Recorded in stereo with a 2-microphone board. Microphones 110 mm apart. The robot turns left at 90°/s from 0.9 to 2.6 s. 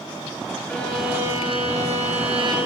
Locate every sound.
0.7 s a violin: 10° left, 5.5 m; by 2.6 s 140° right, 5.5 m